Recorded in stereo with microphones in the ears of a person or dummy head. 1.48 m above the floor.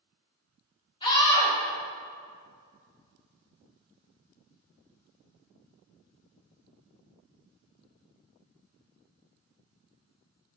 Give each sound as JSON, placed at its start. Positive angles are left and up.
{"t": 1.0, "sound": "a scream", "side_deg": 20, "distance_m": 2.5}